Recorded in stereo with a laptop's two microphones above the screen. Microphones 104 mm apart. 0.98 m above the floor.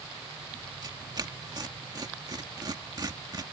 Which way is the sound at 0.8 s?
40° right (ahead or behind).